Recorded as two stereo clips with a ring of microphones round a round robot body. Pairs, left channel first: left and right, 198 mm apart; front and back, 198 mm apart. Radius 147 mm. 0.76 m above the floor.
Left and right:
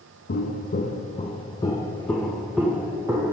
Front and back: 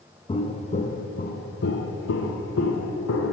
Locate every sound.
0.3 s footsteps: 60° left, 1.5 m; by 3.3 s 15° right, 2 m